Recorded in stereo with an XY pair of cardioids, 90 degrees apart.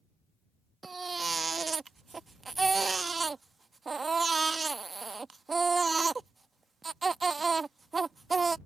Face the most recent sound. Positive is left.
turn(degrees=-35)